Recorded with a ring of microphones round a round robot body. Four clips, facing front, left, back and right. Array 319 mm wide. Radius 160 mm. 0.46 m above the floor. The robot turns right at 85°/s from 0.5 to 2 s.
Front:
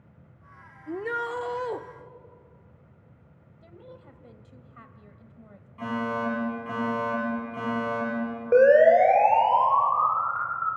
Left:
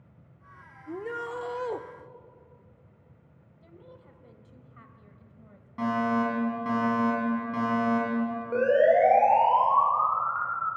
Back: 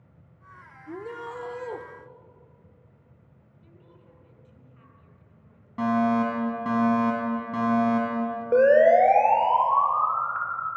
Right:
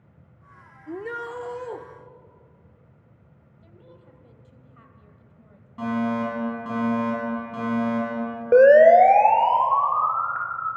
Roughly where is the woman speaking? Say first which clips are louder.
Even, front 8 dB; ahead.